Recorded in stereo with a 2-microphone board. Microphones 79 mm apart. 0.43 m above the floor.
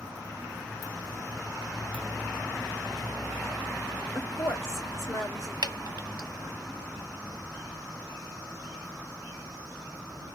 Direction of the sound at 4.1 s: 35° left (ahead or behind).